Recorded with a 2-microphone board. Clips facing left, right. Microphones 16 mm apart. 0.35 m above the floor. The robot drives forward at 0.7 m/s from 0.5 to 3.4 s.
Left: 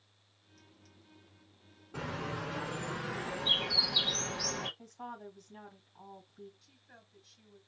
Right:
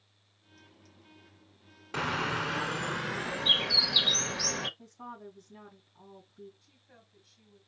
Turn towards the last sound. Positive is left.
turn(degrees=20)  # may be behind; listen again after turning